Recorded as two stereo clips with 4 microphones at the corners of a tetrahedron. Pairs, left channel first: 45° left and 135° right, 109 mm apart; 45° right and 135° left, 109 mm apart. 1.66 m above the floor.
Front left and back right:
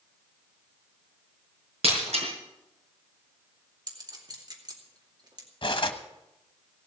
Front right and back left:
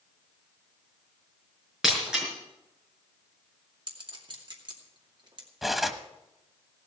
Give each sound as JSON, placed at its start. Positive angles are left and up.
{"t": 1.8, "sound": "breaking glass", "azimuth_deg": -140, "distance_m": 5.0}
{"t": 3.9, "sound": "a clink", "azimuth_deg": 175, "distance_m": 2.5}
{"t": 5.6, "sound": "cutlery clinking", "azimuth_deg": 50, "distance_m": 1.2}